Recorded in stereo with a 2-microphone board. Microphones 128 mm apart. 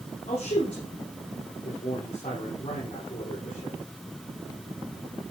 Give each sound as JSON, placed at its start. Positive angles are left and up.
{"t": 0.3, "sound": "a man speaking", "side_deg": 65, "distance_m": 4.5}